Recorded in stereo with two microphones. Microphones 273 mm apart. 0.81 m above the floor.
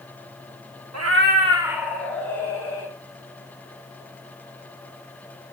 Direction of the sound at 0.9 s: 70° right (ahead or behind).